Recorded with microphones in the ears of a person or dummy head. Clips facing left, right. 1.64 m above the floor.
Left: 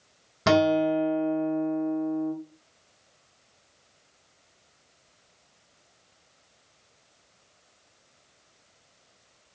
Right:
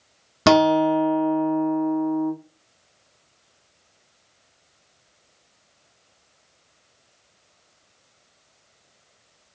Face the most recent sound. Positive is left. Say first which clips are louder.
# right 5 dB
turn(degrees=-70)  # may be behind; listen again after turning